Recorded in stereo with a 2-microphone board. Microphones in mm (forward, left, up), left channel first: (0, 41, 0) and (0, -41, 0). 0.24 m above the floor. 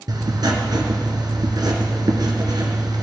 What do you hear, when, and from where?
0.1 s writing: 55° right (ahead or behind), 1.6 m